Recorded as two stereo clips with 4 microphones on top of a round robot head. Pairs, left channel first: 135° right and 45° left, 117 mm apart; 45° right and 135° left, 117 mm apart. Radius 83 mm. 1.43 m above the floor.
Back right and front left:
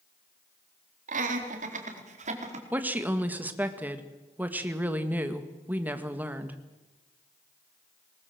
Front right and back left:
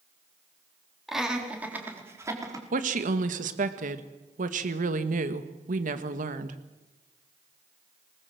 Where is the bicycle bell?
No bicycle bell in this recording.